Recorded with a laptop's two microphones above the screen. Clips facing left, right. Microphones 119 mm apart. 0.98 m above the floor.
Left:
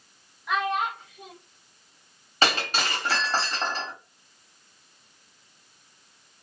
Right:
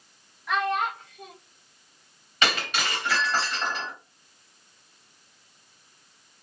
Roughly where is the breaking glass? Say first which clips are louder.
Left 2 dB; left.